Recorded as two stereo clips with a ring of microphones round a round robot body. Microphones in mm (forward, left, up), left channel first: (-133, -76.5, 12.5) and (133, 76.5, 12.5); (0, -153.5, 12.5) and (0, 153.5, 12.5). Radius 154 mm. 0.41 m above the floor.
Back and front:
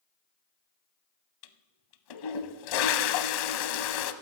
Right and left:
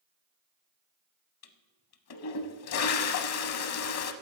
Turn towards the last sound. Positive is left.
turn(degrees=-135)